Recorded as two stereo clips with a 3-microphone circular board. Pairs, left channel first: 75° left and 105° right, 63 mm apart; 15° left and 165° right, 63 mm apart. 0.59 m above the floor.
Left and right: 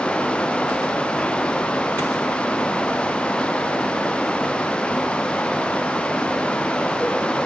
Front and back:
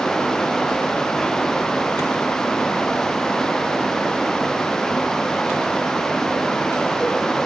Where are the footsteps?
I don't hear footsteps.